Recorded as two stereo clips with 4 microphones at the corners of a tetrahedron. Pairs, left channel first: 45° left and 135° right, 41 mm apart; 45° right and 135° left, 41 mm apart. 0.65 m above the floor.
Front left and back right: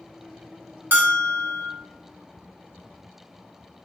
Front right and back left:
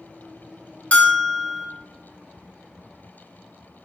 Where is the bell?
100° right, 0.7 m.